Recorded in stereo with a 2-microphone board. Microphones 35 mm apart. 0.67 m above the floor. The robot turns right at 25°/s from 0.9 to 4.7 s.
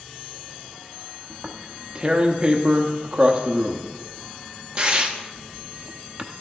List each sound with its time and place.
1.3 s tearing paper: 20° right (ahead or behind), 0.8 m; by 6.2 s 30° right (ahead or behind), 0.8 m